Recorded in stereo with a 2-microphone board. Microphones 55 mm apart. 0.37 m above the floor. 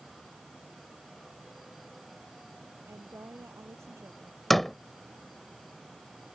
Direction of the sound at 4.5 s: Centre (ahead or behind).